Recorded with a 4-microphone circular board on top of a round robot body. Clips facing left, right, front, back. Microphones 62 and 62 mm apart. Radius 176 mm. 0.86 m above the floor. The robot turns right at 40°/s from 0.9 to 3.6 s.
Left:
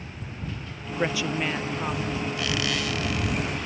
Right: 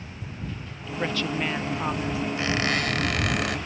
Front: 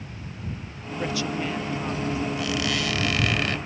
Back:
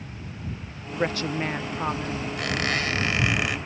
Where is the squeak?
150° right; by 3.6 s 100° right.